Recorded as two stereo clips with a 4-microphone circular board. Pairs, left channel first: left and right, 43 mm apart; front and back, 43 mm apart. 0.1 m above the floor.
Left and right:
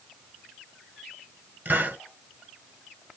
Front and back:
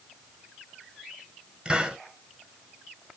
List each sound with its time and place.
1.6 s a hiss: 120° right, 1.3 m